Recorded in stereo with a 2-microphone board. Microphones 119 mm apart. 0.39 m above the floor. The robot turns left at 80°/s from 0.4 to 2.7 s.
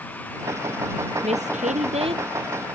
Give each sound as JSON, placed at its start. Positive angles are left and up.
{"t": 1.2, "sound": "a woman speaking", "azimuth_deg": -60}